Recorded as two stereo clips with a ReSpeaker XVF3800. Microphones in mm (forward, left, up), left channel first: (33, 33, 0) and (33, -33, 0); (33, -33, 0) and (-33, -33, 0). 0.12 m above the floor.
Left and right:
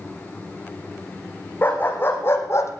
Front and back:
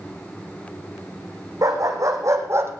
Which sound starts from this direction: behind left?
A dog barking, at 1.6 s.